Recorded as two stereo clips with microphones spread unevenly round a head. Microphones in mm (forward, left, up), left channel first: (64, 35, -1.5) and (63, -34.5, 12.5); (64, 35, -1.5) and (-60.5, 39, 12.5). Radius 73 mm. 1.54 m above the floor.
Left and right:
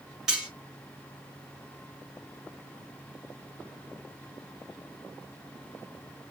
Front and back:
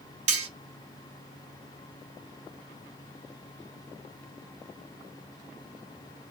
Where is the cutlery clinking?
170° right, 1.1 m.